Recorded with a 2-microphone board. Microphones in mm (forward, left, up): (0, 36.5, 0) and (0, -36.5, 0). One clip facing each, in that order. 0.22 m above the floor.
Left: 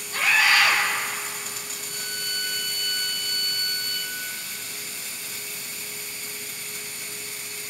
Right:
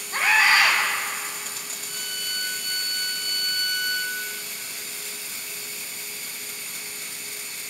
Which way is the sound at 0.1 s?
35° right (ahead or behind).